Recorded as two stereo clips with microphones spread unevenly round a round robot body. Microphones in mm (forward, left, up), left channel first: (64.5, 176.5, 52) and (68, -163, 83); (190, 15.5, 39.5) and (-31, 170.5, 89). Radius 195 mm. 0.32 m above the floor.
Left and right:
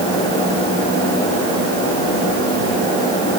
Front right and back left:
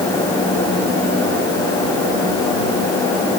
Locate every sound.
Only background noise.